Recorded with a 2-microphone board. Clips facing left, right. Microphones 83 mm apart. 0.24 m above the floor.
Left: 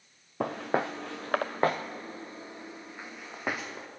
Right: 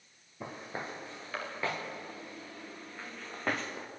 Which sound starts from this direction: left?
Footsteps, at 0.4 s.